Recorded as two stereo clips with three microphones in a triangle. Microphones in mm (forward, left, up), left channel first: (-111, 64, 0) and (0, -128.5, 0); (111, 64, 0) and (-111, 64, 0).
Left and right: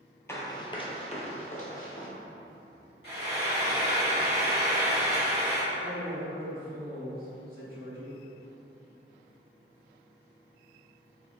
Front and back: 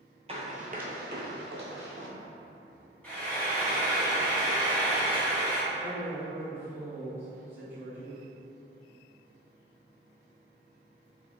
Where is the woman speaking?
100° right, 1.6 m.